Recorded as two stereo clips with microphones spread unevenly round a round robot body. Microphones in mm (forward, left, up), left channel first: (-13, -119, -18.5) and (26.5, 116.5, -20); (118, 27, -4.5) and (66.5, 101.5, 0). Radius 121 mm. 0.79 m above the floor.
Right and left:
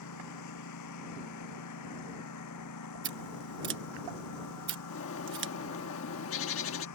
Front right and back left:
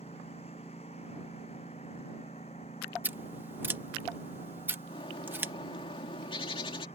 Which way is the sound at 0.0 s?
115° right.